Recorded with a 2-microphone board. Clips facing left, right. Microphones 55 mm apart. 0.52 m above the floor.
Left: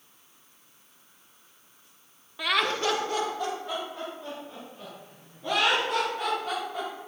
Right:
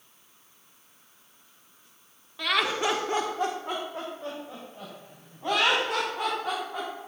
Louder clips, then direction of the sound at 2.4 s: Even; 10° left (ahead or behind).